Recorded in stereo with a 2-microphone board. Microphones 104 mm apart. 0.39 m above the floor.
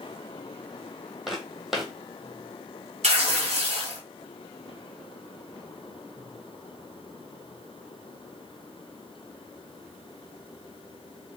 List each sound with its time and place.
1.3 s footsteps: centre (ahead or behind), 0.8 m
3.0 s tearing paper: 85° right, 1.2 m